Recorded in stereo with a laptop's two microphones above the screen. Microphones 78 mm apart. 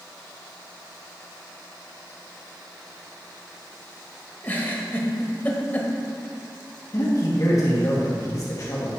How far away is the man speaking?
About 1.6 m.